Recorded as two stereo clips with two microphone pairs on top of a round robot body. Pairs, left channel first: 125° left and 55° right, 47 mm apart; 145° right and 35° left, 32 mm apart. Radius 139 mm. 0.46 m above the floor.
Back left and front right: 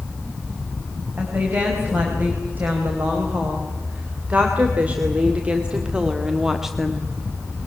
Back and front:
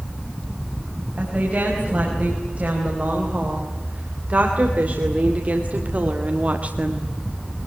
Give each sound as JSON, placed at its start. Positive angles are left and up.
{"t": 1.2, "sound": "a woman speaking", "azimuth_deg": -10, "distance_m": 5.5}